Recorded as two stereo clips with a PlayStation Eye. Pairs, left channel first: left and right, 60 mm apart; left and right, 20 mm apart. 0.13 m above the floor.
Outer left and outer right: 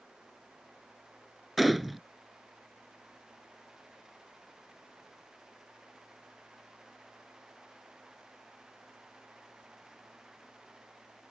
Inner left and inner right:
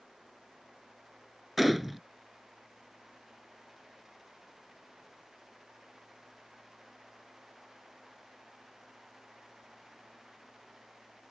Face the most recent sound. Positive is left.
turn(degrees=0)  # may be behind; listen again after turning